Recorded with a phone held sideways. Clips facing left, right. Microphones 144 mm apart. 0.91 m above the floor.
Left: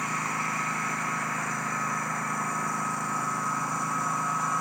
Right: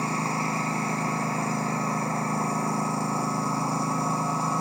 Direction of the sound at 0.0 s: 30° right (ahead or behind).